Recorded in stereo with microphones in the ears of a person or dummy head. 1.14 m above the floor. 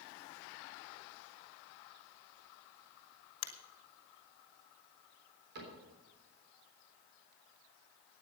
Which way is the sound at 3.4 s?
75° left (ahead or behind).